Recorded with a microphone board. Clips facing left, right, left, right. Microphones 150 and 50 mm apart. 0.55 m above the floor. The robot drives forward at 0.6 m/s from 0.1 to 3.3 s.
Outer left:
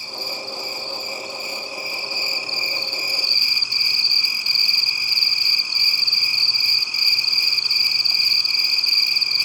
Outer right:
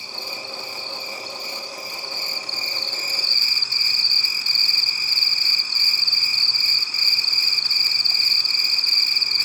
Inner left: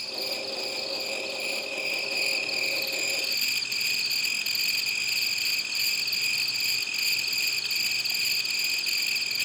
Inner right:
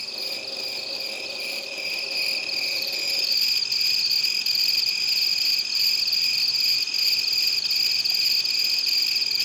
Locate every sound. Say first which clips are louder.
0.0 s an insect: outer left 3 dB, inner left 1 dB; 5° left (ahead or behind), 2.5 m; by 9.4 s 15° left (ahead or behind), 0.8 m